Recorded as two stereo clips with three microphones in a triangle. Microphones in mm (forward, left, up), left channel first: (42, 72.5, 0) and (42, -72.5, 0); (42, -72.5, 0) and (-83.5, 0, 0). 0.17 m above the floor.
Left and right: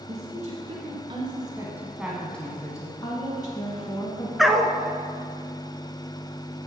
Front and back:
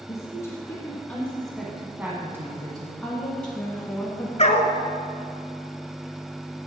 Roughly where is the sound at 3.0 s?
Ahead left.